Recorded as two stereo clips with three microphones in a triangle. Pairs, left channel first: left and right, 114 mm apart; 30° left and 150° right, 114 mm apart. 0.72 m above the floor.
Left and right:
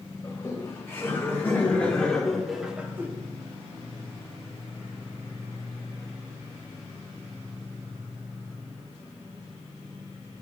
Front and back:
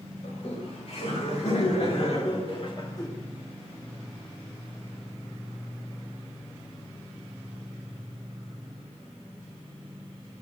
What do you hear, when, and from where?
0.2 s laughter: 25° left, 3.5 m; by 3.1 s 25° right, 1.1 m